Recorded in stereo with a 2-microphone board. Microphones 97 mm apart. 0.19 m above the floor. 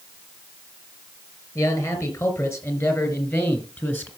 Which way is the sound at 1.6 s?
35° left (ahead or behind).